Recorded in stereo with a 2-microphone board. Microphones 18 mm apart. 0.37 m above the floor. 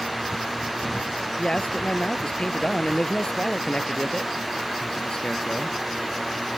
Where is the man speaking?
55° left (ahead or behind).